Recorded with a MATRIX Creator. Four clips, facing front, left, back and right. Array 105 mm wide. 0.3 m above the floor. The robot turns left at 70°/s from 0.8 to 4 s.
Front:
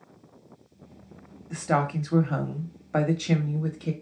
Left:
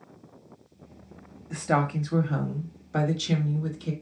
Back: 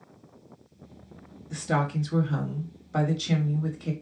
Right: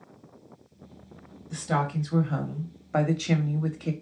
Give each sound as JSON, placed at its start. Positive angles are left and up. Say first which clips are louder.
{"t": 1.5, "sound": "a woman speaking", "louder": "left 2 dB, front 2 dB", "azimuth_deg": 60, "distance_m": 1.1}